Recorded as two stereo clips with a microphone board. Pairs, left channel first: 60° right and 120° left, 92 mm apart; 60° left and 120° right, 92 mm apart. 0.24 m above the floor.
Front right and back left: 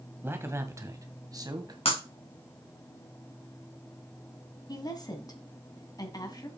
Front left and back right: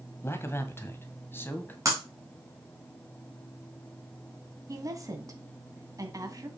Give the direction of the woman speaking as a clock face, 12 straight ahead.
3 o'clock.